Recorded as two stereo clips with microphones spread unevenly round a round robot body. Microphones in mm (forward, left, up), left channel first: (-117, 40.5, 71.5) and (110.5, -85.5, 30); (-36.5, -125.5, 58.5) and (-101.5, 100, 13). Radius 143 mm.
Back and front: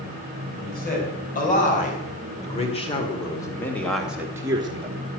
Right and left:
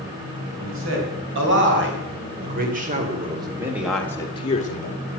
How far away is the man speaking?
About 4 m.